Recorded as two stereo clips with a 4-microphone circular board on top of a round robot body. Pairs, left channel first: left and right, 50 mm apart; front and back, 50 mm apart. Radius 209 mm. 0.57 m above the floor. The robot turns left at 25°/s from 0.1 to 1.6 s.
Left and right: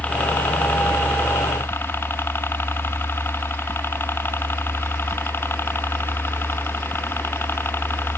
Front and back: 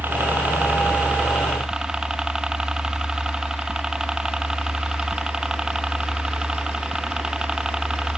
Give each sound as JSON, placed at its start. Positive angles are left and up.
{"t": 0.0, "sound": "a helicopter", "azimuth_deg": 140}